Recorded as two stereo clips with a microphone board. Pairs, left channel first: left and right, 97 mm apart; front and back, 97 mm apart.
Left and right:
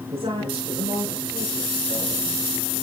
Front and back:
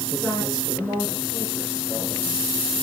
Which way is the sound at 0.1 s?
85° right.